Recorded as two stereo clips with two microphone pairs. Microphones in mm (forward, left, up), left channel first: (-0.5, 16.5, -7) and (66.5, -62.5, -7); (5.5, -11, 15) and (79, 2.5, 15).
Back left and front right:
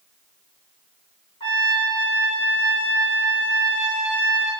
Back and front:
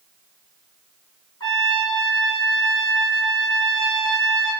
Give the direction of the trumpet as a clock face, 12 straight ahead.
6 o'clock.